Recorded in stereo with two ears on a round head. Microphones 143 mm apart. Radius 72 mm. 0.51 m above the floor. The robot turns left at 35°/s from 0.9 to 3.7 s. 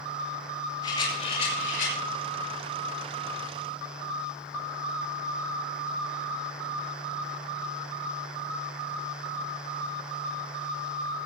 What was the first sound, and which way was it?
A rattle, 150° left.